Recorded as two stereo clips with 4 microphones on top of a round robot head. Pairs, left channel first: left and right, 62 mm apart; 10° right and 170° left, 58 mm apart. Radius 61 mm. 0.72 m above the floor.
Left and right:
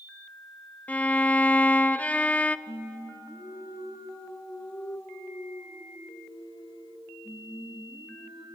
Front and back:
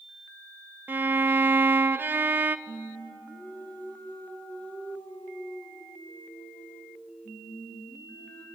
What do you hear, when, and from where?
0.9 s a violin: 140° left, 0.6 m
2.7 s singing: 55° left, 4 m